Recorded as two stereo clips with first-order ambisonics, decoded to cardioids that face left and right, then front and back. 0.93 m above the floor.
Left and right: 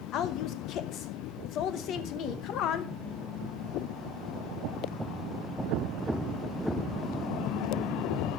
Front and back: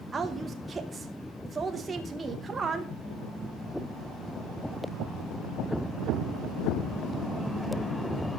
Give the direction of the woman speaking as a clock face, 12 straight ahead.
8 o'clock.